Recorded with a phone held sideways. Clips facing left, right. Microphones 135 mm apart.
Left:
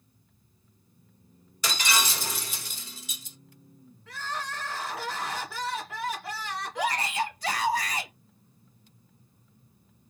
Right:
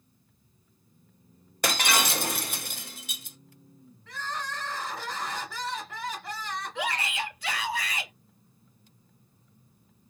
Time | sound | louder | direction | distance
1.6 | breaking glass | right 3 dB | 60° right (ahead or behind) | 0.6 m
4.1 | crying | even | 5° left (ahead or behind) | 1.9 m
6.8 | a shout | left 5 dB | 40° left (ahead or behind) | 1.1 m